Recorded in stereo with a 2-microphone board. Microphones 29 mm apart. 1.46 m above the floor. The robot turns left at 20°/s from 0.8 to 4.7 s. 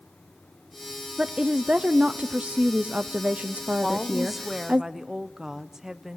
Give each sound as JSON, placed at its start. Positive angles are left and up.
{"t": 1.2, "sound": "a woman speaking", "azimuth_deg": -40, "distance_m": 0.5}
{"t": 3.8, "sound": "a woman speaking", "side_deg": 0, "distance_m": 0.8}